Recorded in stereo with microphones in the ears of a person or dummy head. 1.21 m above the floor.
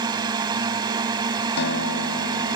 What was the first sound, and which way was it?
A drone, 20° right (ahead or behind).